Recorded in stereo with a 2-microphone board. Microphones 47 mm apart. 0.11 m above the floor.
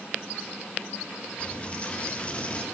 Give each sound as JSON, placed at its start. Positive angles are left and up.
{"t": 1.4, "sound": "a dropped coin", "side_deg": 25, "distance_m": 1.4}